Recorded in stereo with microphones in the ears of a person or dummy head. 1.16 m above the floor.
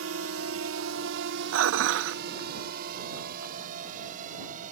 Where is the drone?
65° right (ahead or behind); by 4.7 s 45° right (ahead or behind).